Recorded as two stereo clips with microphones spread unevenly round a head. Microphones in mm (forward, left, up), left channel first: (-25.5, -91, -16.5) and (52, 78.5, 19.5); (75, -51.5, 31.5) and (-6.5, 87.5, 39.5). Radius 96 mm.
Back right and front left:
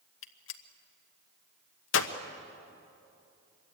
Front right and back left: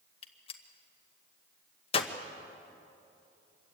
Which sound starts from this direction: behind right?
A gunshot, at 0.2 s.